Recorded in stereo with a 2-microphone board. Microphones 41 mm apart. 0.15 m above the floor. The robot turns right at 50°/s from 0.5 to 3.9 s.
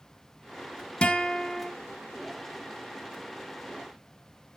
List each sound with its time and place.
1.0 s a guitar: 25° left (ahead or behind), 1.4 m; by 1.7 s 20° left (ahead or behind), 1.4 m